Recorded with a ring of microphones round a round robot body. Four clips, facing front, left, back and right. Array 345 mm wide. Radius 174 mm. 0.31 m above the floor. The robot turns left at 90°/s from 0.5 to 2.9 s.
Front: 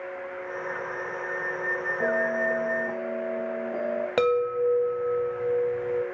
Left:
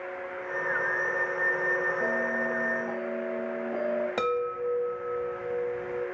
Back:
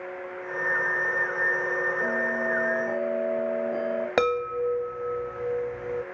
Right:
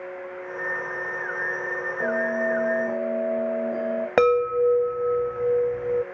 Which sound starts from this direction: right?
A chime, at 4.2 s.